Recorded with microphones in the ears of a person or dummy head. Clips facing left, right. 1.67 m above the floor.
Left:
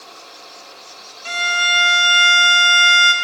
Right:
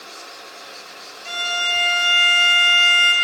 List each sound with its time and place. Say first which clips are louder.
1.2 s a violin: left 3 dB; 65° left (ahead or behind), 0.6 m